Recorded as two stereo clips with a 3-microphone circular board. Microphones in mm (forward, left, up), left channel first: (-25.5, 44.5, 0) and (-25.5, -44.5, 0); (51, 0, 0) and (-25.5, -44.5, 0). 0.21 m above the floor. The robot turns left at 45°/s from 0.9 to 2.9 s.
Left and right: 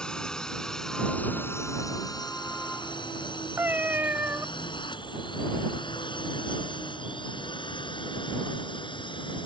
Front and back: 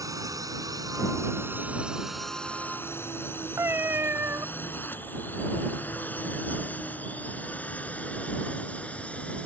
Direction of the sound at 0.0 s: 170° left.